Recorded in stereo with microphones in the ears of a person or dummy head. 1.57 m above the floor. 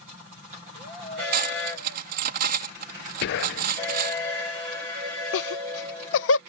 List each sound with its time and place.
1.3 s cutlery clinking: 45° right (ahead or behind)
3.2 s whispering: 60° left (ahead or behind)
5.3 s laughter: 75° left (ahead or behind)